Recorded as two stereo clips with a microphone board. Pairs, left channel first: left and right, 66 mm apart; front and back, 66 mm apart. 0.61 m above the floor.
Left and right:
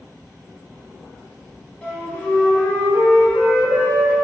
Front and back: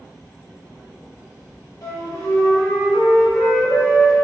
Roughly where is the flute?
Ahead left.